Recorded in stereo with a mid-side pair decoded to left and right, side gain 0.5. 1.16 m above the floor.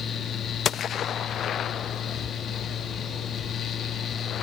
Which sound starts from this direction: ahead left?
A fan, at 0.0 s.